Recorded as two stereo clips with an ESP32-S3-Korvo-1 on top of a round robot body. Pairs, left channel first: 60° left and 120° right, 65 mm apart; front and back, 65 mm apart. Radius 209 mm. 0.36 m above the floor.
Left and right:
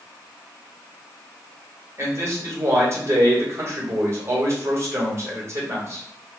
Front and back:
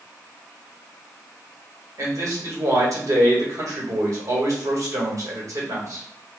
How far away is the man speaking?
About 1.9 m.